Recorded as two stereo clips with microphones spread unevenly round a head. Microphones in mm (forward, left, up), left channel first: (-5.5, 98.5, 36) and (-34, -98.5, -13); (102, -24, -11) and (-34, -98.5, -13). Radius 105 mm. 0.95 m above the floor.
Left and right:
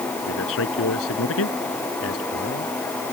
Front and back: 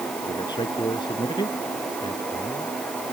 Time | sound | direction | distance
0.3 | a man speaking | 100° left | ?